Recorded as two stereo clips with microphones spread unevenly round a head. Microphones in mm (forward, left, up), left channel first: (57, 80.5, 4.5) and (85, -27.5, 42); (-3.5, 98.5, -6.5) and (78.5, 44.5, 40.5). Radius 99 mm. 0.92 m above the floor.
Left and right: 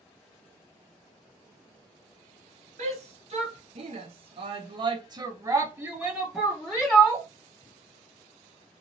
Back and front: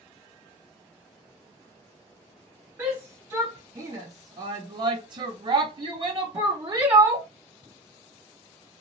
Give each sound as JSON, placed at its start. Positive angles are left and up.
{"t": 2.8, "sound": "a shout", "azimuth_deg": -125, "distance_m": 1.4}